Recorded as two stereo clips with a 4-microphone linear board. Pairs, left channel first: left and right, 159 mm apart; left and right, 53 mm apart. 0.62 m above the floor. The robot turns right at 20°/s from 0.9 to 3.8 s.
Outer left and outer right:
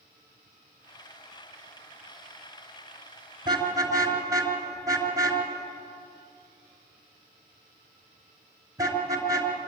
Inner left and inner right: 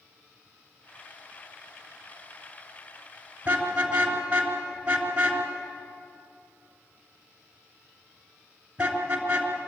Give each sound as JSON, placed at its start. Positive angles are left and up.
{"t": 3.5, "sound": "a car horn", "side_deg": -30, "distance_m": 3.0}